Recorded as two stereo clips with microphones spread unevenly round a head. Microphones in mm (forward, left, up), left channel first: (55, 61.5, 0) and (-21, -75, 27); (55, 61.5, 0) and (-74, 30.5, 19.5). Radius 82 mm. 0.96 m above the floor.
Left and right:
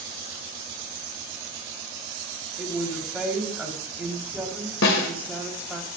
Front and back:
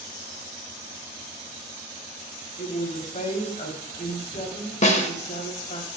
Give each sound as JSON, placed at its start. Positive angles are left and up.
{"t": 2.6, "sound": "a woman speaking", "azimuth_deg": -35, "distance_m": 3.0}
{"t": 4.8, "sound": "a snare drum", "azimuth_deg": 50, "distance_m": 1.7}